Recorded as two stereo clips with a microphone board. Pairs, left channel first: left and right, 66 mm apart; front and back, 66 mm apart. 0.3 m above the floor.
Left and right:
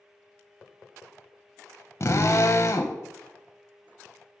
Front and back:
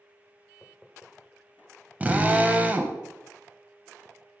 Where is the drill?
120° left, 0.6 m.